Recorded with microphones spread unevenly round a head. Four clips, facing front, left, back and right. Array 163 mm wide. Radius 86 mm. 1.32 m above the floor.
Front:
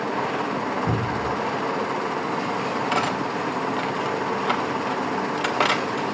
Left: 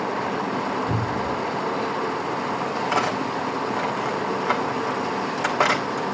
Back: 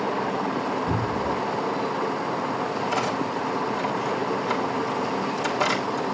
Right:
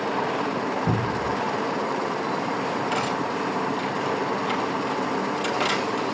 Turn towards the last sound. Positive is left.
turn(degrees=45)